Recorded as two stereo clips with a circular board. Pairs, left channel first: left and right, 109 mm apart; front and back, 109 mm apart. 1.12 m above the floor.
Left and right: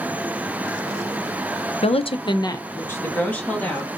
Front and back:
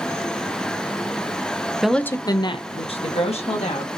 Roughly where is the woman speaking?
Left.